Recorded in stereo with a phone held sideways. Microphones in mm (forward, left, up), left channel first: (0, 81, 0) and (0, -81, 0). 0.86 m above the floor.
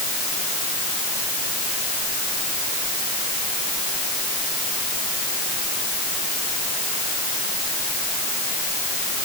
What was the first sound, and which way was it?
Only background noise.